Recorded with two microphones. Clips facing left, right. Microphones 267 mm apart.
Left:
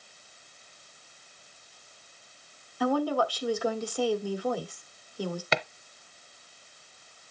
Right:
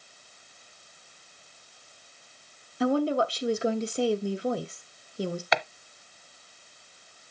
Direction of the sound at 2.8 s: 25° right (ahead or behind).